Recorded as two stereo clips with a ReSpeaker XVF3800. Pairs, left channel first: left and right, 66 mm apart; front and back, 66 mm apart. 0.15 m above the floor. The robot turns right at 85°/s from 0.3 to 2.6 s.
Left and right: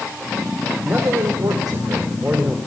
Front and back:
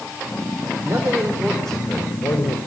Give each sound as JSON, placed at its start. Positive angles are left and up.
{"t": 0.8, "sound": "a man speaking", "azimuth_deg": -150, "distance_m": 5.5}